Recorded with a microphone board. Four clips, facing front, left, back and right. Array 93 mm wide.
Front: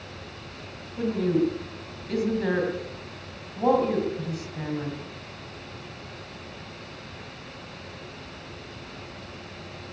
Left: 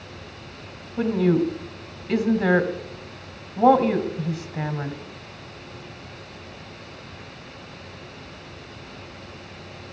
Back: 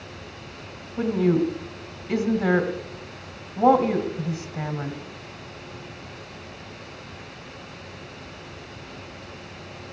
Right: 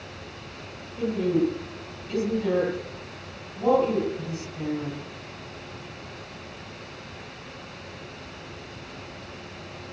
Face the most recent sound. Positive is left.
turn(degrees=105)